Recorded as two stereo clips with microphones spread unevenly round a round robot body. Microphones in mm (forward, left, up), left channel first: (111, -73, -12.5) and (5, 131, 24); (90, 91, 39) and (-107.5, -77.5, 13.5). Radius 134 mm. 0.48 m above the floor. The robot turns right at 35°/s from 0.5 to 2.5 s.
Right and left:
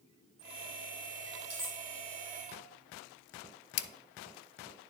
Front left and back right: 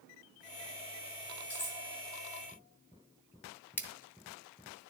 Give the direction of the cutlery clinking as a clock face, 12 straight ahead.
11 o'clock.